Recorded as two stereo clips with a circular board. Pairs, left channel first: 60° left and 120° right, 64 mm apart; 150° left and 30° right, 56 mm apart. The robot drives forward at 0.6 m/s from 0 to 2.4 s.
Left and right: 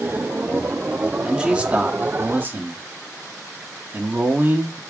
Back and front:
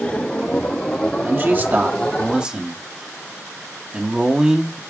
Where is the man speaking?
50° right, 1.5 m; by 4.8 s 95° right, 1.4 m.